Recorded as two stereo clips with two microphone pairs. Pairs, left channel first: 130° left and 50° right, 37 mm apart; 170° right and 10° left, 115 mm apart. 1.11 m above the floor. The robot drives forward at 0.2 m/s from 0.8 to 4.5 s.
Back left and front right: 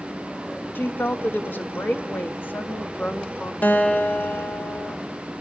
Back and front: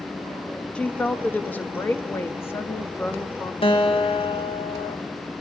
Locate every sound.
0.8 s a woman speaking: 110° left, 1.3 m; by 3.5 s 130° left, 1.6 m
3.6 s a guitar: 160° left, 1.2 m